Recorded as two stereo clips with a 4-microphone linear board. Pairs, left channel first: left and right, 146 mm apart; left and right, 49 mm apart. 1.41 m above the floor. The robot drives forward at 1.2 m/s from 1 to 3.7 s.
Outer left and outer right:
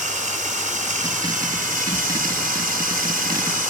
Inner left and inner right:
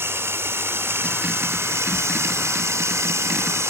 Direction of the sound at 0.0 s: 60° right (ahead or behind).